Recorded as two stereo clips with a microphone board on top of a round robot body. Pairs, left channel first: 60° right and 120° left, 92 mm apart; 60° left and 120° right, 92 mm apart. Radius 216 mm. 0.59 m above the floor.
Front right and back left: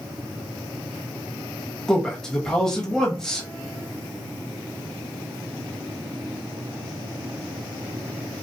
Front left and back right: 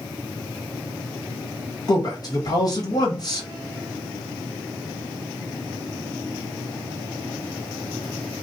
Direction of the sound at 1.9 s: 25° left.